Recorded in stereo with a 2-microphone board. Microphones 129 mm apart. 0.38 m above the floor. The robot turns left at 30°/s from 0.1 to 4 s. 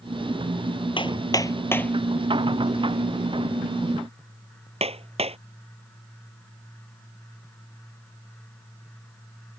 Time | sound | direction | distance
1.0 | hammering | 40° left (ahead or behind) | ?